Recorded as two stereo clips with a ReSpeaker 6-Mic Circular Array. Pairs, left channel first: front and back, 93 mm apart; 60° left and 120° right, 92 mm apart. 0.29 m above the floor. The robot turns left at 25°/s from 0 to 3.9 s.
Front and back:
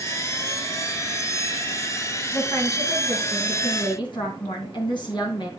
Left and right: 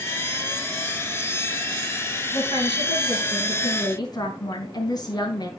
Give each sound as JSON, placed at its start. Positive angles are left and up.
{"t": 2.3, "sound": "a woman speaking", "azimuth_deg": 65, "distance_m": 3.5}